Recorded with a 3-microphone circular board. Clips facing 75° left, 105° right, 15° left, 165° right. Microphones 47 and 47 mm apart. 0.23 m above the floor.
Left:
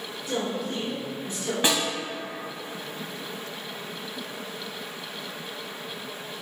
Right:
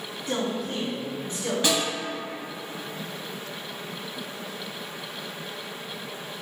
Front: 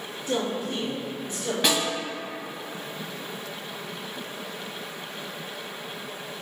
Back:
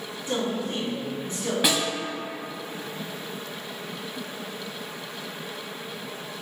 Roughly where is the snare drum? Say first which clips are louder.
Left 1 dB, front 1 dB; left.